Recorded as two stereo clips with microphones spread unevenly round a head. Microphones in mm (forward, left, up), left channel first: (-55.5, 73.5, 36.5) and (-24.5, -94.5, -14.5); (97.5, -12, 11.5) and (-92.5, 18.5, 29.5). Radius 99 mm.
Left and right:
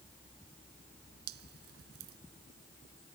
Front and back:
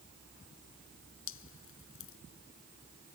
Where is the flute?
I don't hear a flute.